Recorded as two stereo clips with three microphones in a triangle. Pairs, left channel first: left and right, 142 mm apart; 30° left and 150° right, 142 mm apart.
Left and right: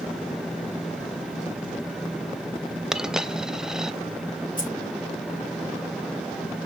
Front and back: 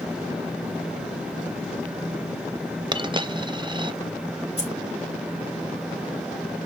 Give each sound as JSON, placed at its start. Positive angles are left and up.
{"t": 2.9, "sound": "a dropped coin", "azimuth_deg": -175, "distance_m": 0.5}
{"t": 4.6, "sound": "keys jangling", "azimuth_deg": 75, "distance_m": 3.5}